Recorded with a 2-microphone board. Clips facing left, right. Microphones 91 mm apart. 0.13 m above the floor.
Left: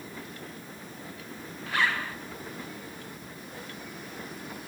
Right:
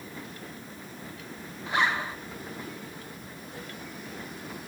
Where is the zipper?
20° right (ahead or behind), 0.9 m.